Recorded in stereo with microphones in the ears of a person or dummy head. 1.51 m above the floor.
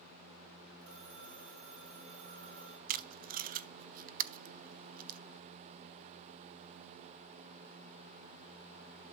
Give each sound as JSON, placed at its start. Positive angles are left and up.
{"t": 0.8, "sound": "a phone ringing", "side_deg": -70, "distance_m": 4.5}
{"t": 2.9, "sound": "tape being pulled", "side_deg": -40, "distance_m": 0.6}